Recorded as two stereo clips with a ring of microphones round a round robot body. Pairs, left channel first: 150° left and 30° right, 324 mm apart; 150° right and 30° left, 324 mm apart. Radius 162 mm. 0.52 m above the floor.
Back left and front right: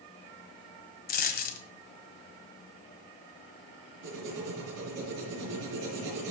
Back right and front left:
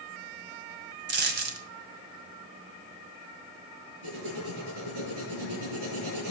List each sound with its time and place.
1.1 s a dropped coin: 90° left, 1.7 m
4.0 s writing: 25° left, 8.5 m